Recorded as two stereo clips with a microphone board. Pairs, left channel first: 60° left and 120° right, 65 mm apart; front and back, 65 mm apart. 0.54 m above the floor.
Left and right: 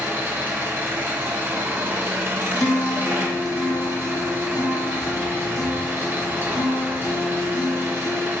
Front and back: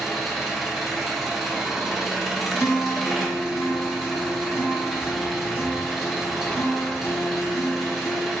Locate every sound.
0.0 s an engine running: 90° right, 0.8 m
2.5 s a guitar: 40° left, 0.7 m